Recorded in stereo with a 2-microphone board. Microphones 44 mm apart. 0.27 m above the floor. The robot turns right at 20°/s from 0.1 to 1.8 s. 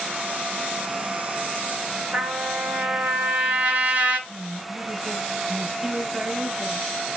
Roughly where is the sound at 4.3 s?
Centre.